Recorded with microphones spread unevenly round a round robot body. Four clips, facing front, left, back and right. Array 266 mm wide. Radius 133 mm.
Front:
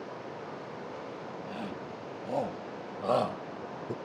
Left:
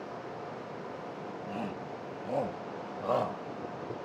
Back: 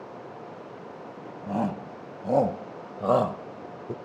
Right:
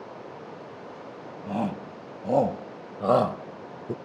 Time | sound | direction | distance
1.5 | a shout | 140° right | ?